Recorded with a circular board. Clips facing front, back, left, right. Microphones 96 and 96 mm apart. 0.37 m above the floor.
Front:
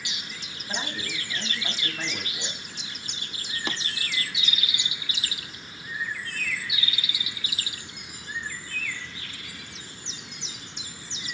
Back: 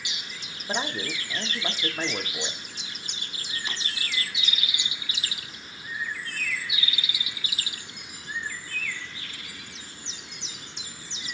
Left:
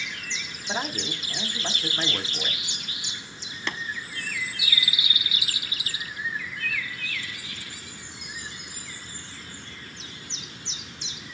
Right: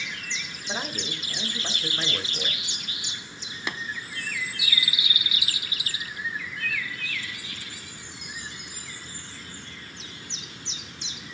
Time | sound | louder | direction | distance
0.7 | a man speaking | back 4 dB, left 3 dB | 170° left | 1.2 m
3.7 | tapping | front 6 dB, left 1 dB | 15° right | 0.9 m